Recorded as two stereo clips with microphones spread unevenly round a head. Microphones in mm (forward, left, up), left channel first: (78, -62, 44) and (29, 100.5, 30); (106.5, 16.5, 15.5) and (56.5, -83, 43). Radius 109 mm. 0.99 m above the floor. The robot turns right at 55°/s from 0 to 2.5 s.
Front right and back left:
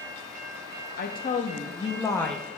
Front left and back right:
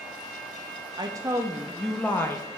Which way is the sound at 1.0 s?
60° right.